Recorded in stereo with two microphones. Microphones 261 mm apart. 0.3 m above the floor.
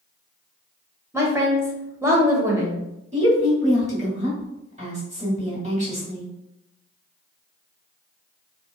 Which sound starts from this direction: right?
A woman speaking, at 3.1 s.